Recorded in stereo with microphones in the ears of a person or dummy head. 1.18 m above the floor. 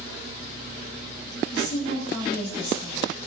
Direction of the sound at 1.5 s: 75° left (ahead or behind).